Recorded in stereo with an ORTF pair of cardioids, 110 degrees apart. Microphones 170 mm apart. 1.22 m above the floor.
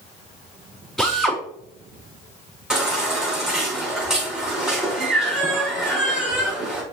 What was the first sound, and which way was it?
A drill, straight ahead.